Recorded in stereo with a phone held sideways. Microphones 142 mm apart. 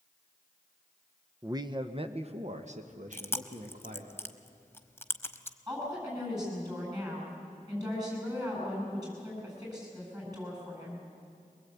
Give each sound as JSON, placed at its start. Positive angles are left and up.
{"t": 1.4, "sound": "a man speaking", "side_deg": -25, "distance_m": 0.8}
{"t": 3.1, "sound": "chewing", "side_deg": 15, "distance_m": 1.0}
{"t": 5.7, "sound": "a woman speaking", "side_deg": -25, "distance_m": 8.5}